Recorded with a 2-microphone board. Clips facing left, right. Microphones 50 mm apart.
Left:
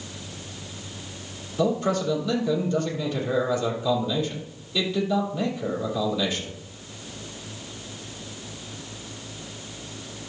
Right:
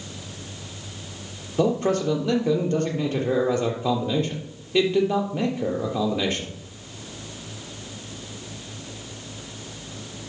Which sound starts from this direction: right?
A man speaking, at 1.6 s.